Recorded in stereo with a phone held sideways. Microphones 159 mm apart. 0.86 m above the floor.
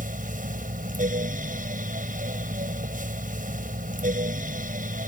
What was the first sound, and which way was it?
A fan, 60° right (ahead or behind).